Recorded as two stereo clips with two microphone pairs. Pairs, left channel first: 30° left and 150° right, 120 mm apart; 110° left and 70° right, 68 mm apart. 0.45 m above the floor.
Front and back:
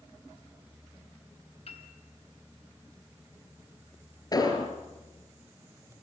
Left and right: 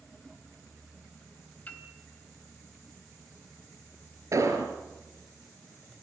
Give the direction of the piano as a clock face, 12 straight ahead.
10 o'clock.